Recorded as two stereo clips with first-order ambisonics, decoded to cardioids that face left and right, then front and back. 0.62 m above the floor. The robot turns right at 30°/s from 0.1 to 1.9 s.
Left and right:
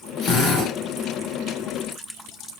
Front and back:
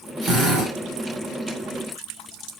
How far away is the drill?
About 1.7 m.